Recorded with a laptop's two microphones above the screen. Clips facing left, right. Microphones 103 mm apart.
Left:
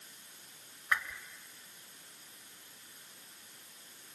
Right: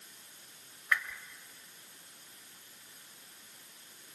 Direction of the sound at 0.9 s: 25° left (ahead or behind).